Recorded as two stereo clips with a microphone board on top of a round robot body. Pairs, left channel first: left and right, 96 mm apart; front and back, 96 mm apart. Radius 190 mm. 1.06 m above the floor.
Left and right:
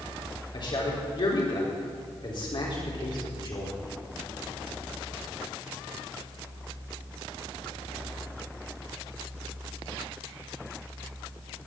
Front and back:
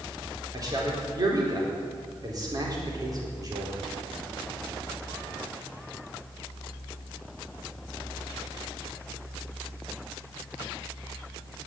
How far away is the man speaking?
About 4 m.